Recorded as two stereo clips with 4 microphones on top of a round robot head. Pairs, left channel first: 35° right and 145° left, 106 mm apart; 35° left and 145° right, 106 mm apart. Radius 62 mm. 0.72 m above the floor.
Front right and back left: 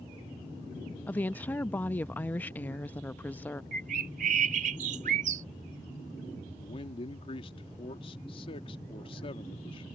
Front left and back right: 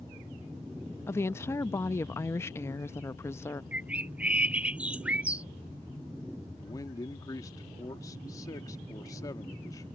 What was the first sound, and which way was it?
A woman speaking, 15° left.